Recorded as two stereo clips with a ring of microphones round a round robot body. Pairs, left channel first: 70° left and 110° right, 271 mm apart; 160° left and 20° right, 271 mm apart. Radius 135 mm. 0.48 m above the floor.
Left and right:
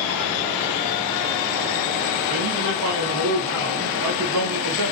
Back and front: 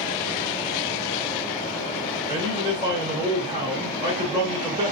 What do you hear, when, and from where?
2.3 s a man speaking: 95° right, 1.5 m